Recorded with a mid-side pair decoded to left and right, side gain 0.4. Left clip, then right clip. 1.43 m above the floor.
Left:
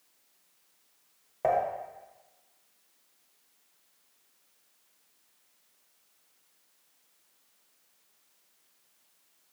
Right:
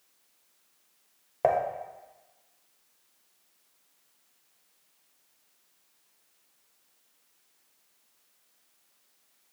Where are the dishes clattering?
50° right, 1.2 m.